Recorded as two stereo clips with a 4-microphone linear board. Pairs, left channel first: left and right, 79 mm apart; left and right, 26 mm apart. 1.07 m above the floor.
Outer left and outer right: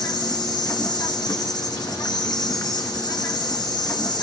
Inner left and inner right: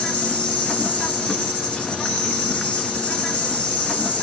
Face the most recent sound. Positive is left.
turn(degrees=60)  # may be behind; listen again after turning